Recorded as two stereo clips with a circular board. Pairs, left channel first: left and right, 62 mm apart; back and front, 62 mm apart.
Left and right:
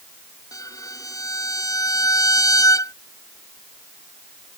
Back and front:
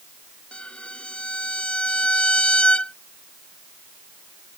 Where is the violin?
110° left.